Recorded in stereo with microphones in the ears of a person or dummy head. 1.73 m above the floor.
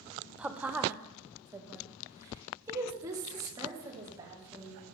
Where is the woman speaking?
10° right (ahead or behind), 0.8 m; by 4.8 s 25° right (ahead or behind), 3.5 m.